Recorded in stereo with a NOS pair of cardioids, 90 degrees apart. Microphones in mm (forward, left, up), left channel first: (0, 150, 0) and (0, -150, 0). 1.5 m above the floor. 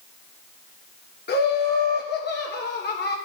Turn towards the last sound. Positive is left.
turn(degrees=35)